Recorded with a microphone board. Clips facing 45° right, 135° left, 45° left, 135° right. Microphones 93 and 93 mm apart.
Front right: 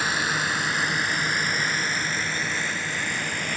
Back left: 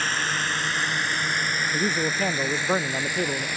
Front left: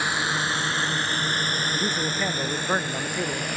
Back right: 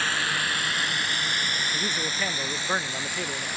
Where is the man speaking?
120° left.